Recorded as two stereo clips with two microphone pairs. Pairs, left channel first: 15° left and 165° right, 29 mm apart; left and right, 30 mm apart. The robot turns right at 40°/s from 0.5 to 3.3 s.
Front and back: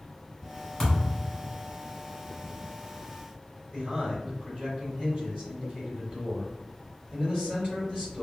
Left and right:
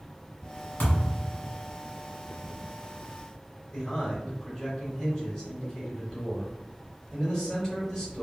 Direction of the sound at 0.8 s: 90° left.